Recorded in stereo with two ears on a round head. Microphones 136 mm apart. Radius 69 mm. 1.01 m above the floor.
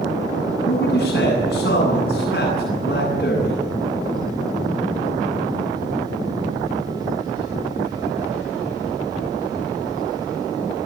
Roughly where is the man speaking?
Left.